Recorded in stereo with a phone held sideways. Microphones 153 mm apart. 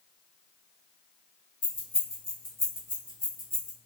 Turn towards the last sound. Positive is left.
turn(degrees=65)  # may be behind; listen again after turning